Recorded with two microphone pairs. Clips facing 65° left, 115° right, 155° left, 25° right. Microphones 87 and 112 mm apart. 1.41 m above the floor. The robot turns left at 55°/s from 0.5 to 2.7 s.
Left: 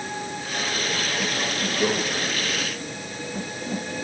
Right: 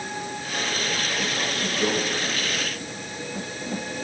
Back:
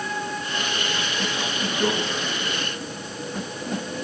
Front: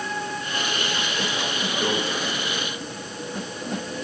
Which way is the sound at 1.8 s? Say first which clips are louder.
Left 2 dB, back 3 dB; 85° left.